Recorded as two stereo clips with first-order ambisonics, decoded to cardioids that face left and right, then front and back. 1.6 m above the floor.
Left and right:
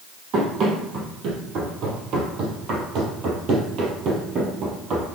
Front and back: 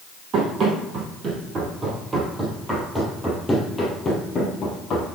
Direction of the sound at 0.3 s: 130° right.